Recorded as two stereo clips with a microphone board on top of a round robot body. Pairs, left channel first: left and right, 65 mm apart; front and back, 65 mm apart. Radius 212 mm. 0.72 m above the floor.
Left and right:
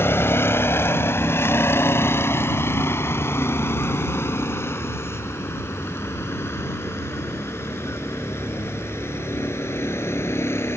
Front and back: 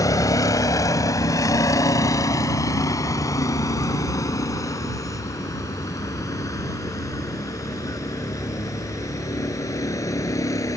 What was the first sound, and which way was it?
A vehicle, 35° left.